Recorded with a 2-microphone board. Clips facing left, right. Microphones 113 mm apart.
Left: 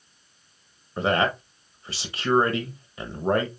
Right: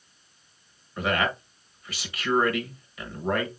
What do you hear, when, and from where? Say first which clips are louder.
1.0 s a man speaking: left 3 dB; 30° left (ahead or behind), 1.2 m